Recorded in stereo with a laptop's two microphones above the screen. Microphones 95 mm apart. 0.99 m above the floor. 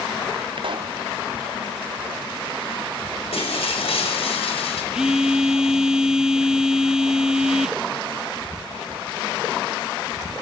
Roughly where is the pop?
Right.